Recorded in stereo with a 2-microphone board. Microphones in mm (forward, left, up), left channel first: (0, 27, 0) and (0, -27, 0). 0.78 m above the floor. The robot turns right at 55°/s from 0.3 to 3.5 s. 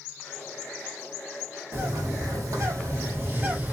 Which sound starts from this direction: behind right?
A bird, at 1.7 s.